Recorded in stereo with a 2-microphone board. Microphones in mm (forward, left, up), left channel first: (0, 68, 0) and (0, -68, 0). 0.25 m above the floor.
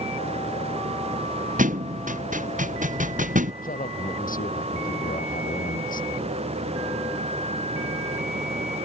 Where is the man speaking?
70° left (ahead or behind).